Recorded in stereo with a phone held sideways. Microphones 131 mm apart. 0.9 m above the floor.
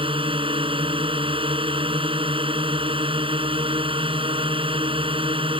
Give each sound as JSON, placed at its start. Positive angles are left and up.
{"t": 0.0, "sound": "a drone", "side_deg": -40}